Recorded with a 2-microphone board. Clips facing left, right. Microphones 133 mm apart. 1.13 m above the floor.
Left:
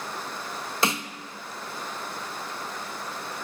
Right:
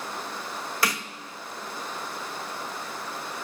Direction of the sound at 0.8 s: 25° left (ahead or behind).